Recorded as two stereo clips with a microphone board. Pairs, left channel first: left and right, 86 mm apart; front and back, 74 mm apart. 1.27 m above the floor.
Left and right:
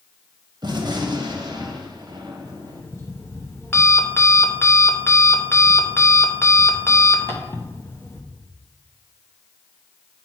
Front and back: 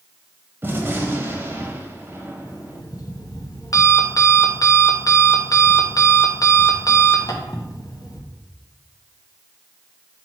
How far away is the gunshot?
About 1.0 m.